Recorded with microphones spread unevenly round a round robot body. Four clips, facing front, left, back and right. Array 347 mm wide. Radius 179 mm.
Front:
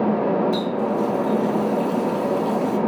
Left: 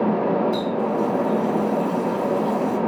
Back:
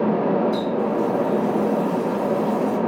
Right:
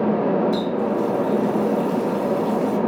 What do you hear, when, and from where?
0.5 s a running tap: 55° right, 4.5 m